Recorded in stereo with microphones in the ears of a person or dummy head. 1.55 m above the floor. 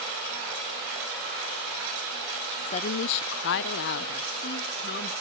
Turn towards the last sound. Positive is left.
turn(degrees=50)  # may be behind; listen again after turning